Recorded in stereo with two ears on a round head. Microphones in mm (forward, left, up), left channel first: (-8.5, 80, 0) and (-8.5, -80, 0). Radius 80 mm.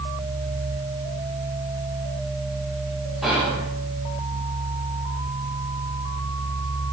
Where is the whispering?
Centre (ahead or behind), 1.3 m.